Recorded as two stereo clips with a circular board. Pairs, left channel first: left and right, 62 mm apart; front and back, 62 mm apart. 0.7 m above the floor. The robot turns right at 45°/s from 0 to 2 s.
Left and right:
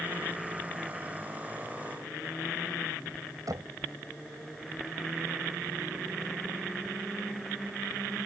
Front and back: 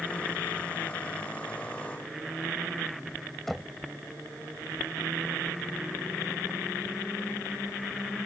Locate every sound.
3.5 s knocking: 85° right